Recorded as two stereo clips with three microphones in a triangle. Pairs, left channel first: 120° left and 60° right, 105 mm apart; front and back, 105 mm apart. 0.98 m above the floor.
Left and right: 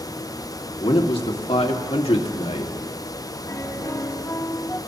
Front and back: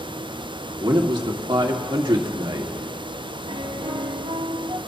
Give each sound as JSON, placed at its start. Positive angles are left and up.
{"t": 0.8, "sound": "a man speaking", "azimuth_deg": 140, "distance_m": 2.0}
{"t": 3.5, "sound": "a piano", "azimuth_deg": 180, "distance_m": 1.8}